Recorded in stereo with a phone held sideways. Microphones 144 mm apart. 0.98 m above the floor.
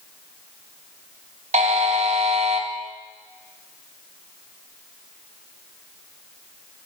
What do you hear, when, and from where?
1.5 s a buzzer: 55° right (ahead or behind), 2.0 m